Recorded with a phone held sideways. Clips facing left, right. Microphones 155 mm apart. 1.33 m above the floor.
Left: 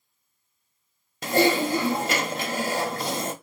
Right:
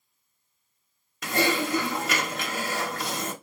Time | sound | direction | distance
1.2 | typing on a keyboard | 30° left (ahead or behind) | 1.0 m